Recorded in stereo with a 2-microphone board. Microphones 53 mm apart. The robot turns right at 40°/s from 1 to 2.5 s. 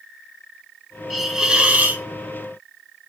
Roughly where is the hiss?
Behind.